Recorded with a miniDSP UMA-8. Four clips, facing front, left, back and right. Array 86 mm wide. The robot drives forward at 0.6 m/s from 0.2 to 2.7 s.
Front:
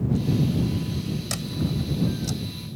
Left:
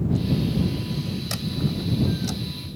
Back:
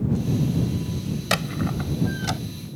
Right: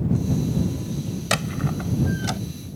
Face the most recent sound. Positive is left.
turn(degrees=-150)